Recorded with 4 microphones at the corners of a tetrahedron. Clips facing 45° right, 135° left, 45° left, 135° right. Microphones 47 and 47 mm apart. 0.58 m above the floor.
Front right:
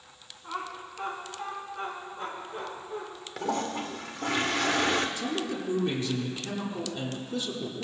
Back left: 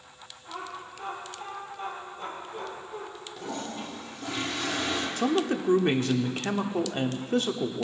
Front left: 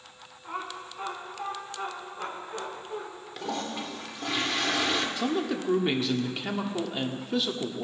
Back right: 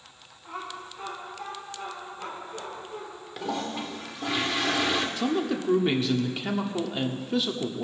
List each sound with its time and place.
0.4 s laughter: 25° right, 5 m; by 3.0 s 10° left, 7 m
3.4 s a toilet flushing: 50° right, 1.0 m
5.2 s a man speaking: 135° left, 1.0 m